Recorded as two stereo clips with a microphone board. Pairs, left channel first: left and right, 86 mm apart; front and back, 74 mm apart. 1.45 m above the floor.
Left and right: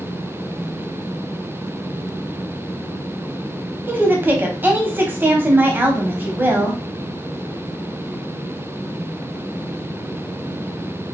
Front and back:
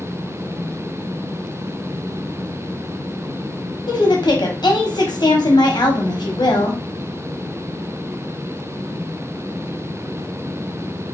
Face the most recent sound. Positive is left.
turn(degrees=-25)